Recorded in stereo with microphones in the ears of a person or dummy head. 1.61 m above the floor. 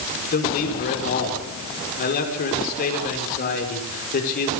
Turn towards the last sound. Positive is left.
turn(degrees=45)  # may be behind; listen again after turning